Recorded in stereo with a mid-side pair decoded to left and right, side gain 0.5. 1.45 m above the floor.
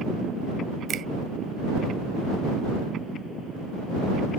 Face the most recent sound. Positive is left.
turn(degrees=-55)